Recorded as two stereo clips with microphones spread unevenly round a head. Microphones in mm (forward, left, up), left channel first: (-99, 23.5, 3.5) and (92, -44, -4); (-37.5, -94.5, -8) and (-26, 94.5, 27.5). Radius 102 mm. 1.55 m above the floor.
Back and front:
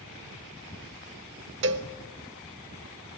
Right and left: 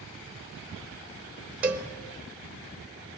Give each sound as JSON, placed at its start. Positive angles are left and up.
{"t": 1.6, "sound": "a cowbell", "azimuth_deg": 10, "distance_m": 1.3}